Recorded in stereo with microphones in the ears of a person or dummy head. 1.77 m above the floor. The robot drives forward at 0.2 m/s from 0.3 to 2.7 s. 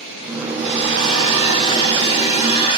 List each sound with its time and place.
0.5 s a hair dryer: 40° left (ahead or behind), 4.5 m; by 2.8 s 35° left (ahead or behind), 4.5 m